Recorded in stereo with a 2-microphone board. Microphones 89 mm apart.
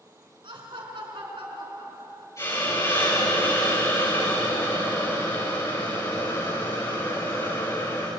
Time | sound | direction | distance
0.4 | laughter | 70° right (ahead or behind) | 4.5 m
2.4 | a hiss | 35° left (ahead or behind) | 7 m